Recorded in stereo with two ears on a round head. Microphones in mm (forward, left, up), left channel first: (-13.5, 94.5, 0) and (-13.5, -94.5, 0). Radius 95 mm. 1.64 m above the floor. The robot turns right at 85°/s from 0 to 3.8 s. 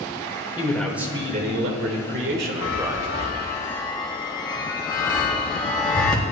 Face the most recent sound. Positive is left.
turn(degrees=20)  # may be behind; listen again after turning